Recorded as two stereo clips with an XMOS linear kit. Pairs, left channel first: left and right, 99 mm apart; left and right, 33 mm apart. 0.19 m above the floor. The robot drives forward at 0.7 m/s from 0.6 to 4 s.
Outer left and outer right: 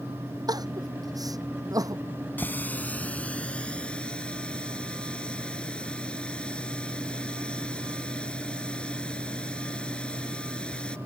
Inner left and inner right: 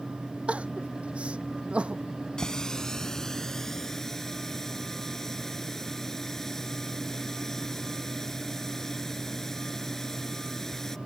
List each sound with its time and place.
0.5 s crying: 40° right (ahead or behind); by 2.0 s 35° right (ahead or behind)
2.4 s a running tap: 20° left (ahead or behind); by 11.0 s 10° left (ahead or behind)